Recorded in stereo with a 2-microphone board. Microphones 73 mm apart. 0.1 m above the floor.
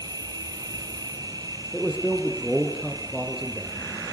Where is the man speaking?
5° right (ahead or behind), 4 m.